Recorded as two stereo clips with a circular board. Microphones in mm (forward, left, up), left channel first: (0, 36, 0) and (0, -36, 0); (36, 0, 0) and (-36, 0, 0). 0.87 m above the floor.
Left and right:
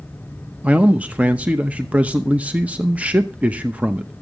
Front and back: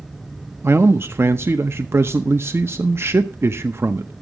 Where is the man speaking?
150° right, 0.7 m.